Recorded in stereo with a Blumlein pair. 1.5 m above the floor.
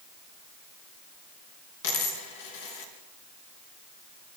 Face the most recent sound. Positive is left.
turn(degrees=50)